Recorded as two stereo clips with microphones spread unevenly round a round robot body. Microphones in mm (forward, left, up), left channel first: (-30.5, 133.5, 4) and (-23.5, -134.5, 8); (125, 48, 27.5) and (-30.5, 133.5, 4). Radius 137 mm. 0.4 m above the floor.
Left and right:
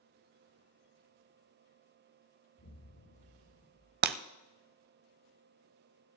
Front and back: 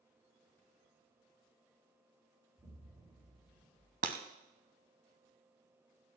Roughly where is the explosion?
Left.